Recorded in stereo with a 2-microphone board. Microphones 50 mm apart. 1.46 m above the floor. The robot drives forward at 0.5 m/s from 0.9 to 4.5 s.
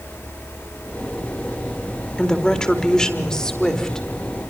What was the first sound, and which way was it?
A woman speaking, 15° left (ahead or behind).